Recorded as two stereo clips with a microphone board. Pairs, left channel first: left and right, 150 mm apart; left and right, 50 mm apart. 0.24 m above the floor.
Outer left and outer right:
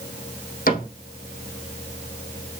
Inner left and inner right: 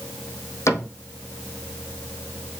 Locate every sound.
0.7 s a cupboard door: 70° left (ahead or behind), 3.5 m